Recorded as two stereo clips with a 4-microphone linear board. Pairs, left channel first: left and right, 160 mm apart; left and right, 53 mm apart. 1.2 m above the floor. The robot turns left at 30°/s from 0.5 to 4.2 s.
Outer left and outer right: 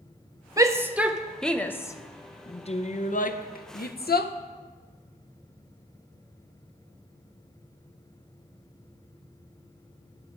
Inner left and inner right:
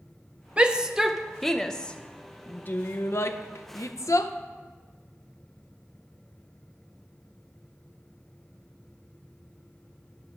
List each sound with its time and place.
0.6 s a shout: 20° right (ahead or behind), 0.6 m; by 4.3 s 80° left, 0.6 m